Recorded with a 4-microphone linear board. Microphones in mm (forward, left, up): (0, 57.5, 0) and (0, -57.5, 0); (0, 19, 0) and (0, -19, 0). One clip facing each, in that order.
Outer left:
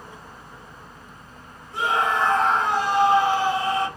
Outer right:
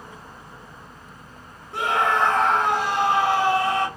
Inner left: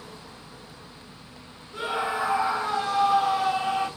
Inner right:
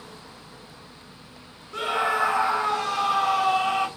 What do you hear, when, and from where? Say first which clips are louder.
1.7 s a scream: outer right 1 dB, inner right 4 dB; 80° right, 1.0 m